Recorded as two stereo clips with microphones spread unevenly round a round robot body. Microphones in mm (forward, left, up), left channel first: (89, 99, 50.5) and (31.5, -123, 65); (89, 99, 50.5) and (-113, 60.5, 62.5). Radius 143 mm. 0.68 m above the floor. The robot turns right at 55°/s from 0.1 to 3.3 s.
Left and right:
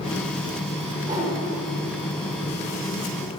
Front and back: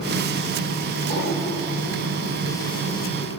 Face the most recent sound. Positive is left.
turn(degrees=90)